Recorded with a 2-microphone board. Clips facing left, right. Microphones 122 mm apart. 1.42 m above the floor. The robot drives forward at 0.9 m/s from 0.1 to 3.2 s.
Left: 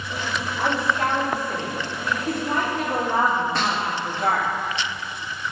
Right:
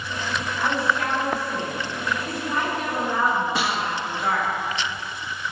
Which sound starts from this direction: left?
A woman speaking, at 0.6 s.